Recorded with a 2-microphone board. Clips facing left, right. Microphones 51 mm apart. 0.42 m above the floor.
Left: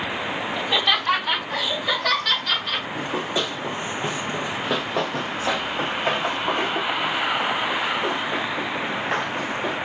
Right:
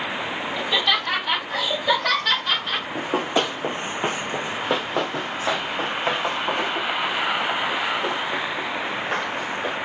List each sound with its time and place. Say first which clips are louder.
0.6 s laughter: even; 15° left (ahead or behind), 2.5 m; by 2.9 s 25° right (ahead or behind), 3 m
3.0 s running footsteps: right 5 dB; 50° right (ahead or behind), 0.7 m; by 9.8 s 10° left (ahead or behind), 3.5 m